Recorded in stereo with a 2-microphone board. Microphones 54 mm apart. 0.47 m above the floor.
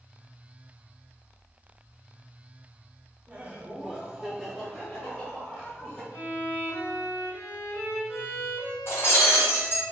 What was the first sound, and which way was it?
Laughter, 25° right (ahead or behind).